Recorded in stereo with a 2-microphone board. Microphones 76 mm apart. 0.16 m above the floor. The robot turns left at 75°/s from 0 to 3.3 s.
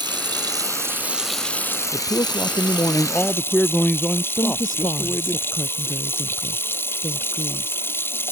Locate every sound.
0.0 s running water: 80° right; by 8.3 s 30° left
1.9 s a man speaking: 125° left; by 5.4 s 20° left
4.4 s a woman speaking: 70° left (ahead or behind)